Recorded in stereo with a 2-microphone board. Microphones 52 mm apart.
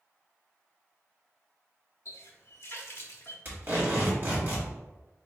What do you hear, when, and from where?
2.0 s a running tap: 55° left (ahead or behind), 0.6 m
3.5 s tape being pulled: 40° right (ahead or behind), 1.4 m